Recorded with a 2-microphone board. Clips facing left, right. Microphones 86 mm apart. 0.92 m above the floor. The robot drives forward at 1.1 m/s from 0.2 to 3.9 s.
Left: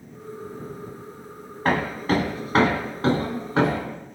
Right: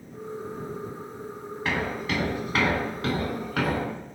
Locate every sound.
1.6 s hammering: 45° left (ahead or behind), 3.5 m; by 3.8 s 25° left (ahead or behind), 5.5 m